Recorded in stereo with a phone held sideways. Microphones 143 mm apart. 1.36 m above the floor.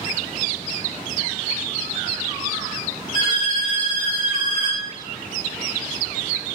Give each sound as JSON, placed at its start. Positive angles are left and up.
{"t": 3.1, "sound": "a violin", "side_deg": 35, "distance_m": 1.3}